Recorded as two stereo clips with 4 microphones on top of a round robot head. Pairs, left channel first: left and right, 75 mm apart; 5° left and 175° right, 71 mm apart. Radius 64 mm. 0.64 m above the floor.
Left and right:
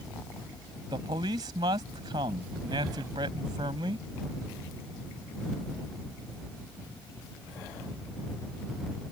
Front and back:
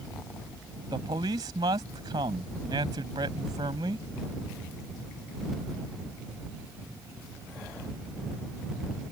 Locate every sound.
0.9 s a man speaking: 135° right